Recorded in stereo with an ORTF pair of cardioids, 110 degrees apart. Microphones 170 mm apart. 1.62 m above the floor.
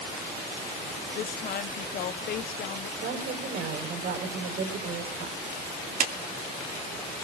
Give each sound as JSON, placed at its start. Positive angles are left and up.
{"t": 1.1, "sound": "a woman speaking", "azimuth_deg": 55, "distance_m": 1.0}
{"t": 3.0, "sound": "a woman speaking", "azimuth_deg": -55, "distance_m": 5.0}
{"t": 6.0, "sound": "a clap", "azimuth_deg": -50, "distance_m": 2.0}